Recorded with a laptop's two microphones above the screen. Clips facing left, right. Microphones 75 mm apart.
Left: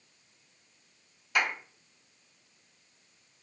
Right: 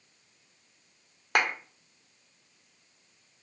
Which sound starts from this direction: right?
A clap, at 1.4 s.